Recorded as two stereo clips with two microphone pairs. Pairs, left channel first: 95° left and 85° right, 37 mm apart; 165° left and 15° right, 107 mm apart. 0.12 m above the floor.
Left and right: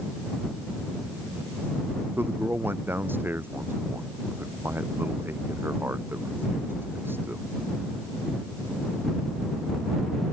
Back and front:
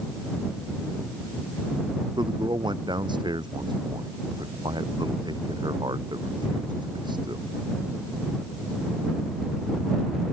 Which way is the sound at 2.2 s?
60° right.